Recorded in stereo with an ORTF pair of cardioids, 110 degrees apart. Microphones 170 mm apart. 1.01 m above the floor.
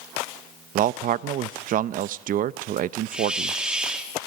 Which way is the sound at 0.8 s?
55° right.